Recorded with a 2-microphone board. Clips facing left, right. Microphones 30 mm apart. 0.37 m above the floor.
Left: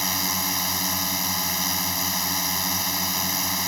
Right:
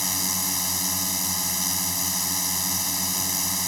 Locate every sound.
0.0 s a drone: 20° left (ahead or behind)